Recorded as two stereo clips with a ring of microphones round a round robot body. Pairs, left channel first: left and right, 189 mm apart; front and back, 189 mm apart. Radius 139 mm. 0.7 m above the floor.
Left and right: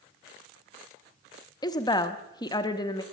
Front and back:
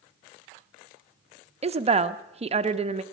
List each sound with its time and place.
1.6 s a woman speaking: 150° left, 0.7 m